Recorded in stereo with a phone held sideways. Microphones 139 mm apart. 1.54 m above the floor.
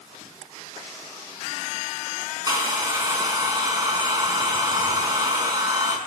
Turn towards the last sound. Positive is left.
turn(degrees=-25)  # may be behind; listen again after turning